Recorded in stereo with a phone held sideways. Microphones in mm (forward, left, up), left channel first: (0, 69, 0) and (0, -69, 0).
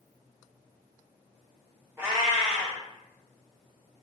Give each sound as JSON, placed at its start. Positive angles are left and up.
{"t": 2.0, "sound": "a cat meowing", "side_deg": -15, "distance_m": 1.1}